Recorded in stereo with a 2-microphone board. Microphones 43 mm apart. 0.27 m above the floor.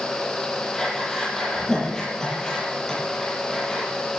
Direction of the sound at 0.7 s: 15° left (ahead or behind).